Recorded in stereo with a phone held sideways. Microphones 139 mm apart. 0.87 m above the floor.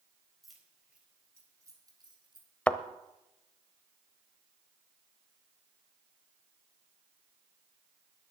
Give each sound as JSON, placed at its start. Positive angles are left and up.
{"t": 0.4, "sound": "keys jangling", "side_deg": 0, "distance_m": 3.5}
{"t": 2.7, "sound": "a thud", "side_deg": 10, "distance_m": 0.8}